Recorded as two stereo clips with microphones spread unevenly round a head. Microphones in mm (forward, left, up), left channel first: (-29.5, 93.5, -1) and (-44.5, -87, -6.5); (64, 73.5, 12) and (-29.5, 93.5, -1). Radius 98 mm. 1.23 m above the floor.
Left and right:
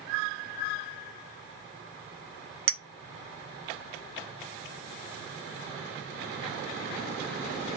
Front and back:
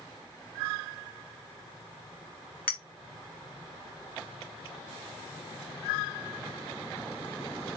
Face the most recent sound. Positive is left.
turn(degrees=-65)